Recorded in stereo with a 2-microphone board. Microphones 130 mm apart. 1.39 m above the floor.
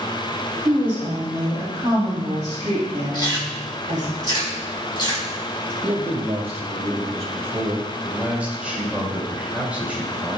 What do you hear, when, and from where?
0.7 s a woman speaking: 15° right (ahead or behind), 2.5 m; by 4.1 s 65° right (ahead or behind), 3 m
3.1 s chewing: 35° left (ahead or behind), 1.6 m
5.8 s a man speaking: 50° right (ahead or behind), 1.5 m
8.0 s a man speaking: 10° right (ahead or behind), 2 m